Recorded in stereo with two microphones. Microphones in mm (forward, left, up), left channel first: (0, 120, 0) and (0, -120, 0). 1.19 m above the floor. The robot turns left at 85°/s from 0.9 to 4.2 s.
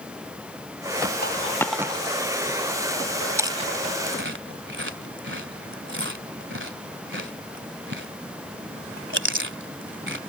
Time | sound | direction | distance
1.2 | a dropped coin | 40° left (ahead or behind) | ?
3.4 | chewing | 10° right (ahead or behind) | ?